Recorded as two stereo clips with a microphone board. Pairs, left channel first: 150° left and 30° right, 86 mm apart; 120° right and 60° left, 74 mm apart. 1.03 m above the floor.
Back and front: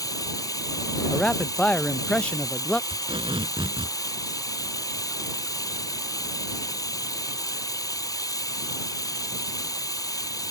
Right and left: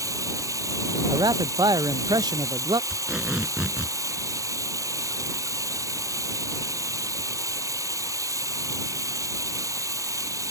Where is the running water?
105° left.